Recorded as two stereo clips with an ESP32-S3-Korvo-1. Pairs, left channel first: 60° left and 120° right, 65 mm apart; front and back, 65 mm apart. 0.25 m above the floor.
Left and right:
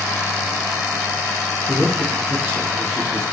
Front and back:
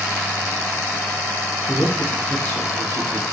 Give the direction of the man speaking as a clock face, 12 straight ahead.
2 o'clock.